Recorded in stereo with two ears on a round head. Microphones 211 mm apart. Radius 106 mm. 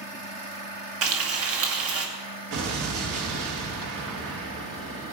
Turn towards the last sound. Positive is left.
turn(degrees=-65)  # may be behind; listen again after turning